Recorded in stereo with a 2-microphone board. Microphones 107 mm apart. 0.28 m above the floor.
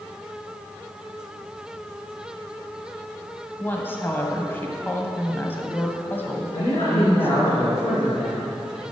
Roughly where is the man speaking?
Left.